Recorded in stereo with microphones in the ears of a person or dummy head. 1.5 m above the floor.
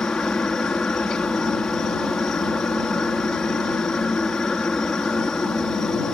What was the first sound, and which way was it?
A helicopter, 5° left (ahead or behind).